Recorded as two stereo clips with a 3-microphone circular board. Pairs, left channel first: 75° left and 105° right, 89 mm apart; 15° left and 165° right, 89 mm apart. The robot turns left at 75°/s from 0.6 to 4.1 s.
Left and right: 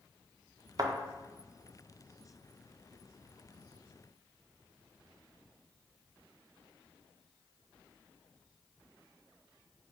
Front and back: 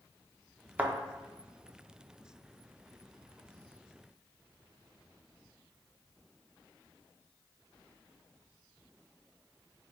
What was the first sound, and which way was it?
A thud, 100° right.